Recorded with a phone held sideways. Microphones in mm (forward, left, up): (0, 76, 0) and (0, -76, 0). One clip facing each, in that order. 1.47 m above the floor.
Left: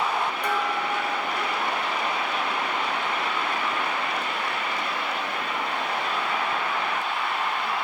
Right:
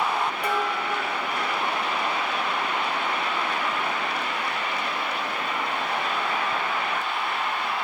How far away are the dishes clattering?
About 2 m.